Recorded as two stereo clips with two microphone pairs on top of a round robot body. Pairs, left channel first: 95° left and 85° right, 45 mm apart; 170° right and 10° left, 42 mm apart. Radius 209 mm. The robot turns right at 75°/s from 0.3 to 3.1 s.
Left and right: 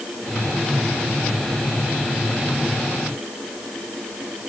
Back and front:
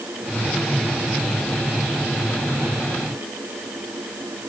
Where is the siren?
No siren in this recording.